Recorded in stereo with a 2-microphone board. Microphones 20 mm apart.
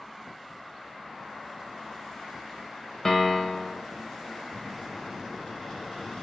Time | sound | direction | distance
3.0 | a piano | 25° left (ahead or behind) | 0.7 m
4.5 | a microwave | 45° left (ahead or behind) | 1.1 m